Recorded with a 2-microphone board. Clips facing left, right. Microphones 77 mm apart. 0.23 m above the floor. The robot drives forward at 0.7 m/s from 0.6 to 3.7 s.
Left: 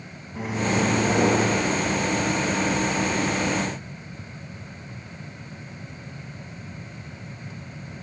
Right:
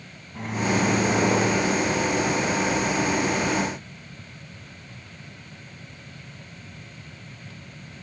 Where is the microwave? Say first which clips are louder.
Even; 5° left (ahead or behind), 1.5 m; by 1.6 s centre (ahead or behind), 2 m.